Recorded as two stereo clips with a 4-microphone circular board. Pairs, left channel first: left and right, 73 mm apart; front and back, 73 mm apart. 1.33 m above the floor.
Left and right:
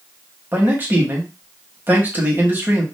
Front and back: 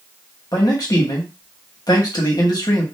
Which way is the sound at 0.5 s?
25° right.